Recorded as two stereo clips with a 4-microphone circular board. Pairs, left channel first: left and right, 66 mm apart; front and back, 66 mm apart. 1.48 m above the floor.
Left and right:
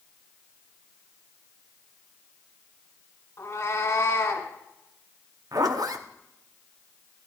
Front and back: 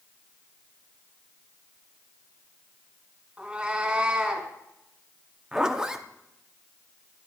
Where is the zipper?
100° right, 0.8 m.